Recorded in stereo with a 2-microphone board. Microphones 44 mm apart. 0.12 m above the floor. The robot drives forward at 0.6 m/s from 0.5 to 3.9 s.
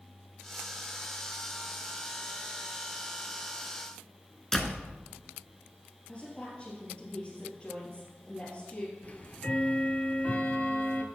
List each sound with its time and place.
4.5 s a door slam: 10° left (ahead or behind), 0.8 m
6.1 s a woman speaking: 30° left (ahead or behind), 3 m
9.0 s ticking: 35° left (ahead or behind), 0.7 m